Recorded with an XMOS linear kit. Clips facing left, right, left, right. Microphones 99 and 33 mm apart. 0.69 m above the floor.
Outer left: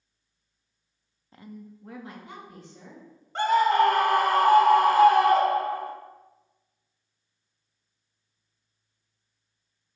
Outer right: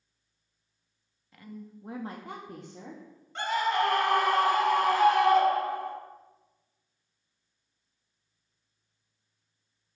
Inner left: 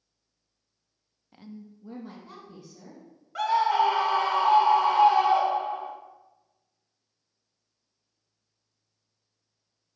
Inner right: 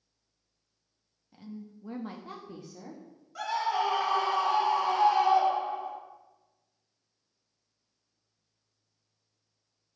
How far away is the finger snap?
No finger snap in this recording.